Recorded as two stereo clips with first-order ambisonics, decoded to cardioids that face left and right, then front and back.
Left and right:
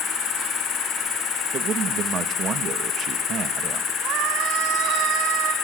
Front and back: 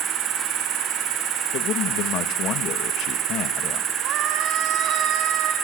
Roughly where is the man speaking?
Ahead right.